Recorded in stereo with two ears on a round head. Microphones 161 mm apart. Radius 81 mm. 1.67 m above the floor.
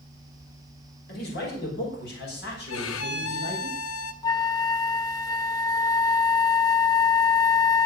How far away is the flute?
About 0.8 m.